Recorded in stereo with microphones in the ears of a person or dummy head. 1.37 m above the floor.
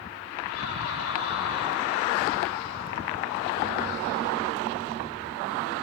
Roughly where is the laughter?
Left.